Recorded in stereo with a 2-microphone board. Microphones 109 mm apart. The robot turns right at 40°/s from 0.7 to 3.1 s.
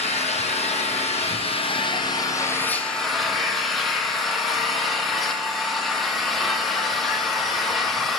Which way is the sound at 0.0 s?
80° left.